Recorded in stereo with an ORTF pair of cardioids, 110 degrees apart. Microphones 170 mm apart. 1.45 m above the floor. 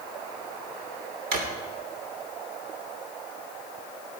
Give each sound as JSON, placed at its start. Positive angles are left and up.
{"t": 1.3, "sound": "a drawer", "azimuth_deg": -60, "distance_m": 3.0}